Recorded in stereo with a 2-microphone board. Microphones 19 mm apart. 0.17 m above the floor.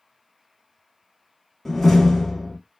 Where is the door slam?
10° left (ahead or behind), 0.8 m.